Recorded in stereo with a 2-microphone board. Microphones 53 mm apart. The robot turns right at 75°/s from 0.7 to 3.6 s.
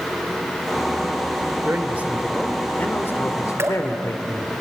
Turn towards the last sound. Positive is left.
turn(degrees=-55)  # may be behind; listen again after turning